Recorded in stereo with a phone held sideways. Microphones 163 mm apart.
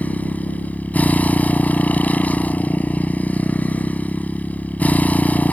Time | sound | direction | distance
0.0 | a motorcycle | 10° left (ahead or behind) | ?